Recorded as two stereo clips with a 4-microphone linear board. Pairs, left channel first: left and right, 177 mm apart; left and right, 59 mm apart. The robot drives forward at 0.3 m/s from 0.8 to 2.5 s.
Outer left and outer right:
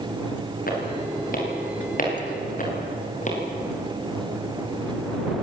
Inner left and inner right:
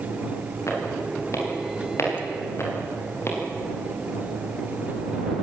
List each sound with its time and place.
0.7 s footsteps: 55° left (ahead or behind), 8.5 m; by 3.4 s 45° left (ahead or behind), 8 m